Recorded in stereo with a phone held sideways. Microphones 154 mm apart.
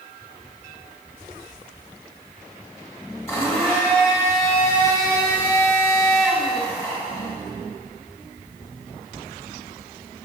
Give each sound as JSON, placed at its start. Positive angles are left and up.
{"t": 3.3, "sound": "a blender", "side_deg": 15, "distance_m": 1.8}